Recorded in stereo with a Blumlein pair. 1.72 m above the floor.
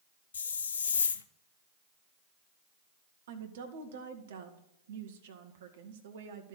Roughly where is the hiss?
Ahead left.